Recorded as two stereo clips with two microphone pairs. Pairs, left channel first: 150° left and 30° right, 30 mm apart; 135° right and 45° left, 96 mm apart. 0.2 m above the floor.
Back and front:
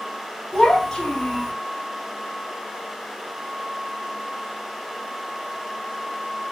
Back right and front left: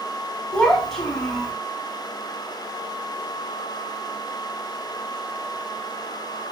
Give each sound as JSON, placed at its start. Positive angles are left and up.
{"t": 0.5, "sound": "a child speaking", "azimuth_deg": 155, "distance_m": 0.7}